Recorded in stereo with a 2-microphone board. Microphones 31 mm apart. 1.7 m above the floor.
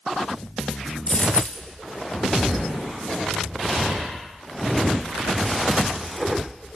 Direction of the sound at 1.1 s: 50° left (ahead or behind).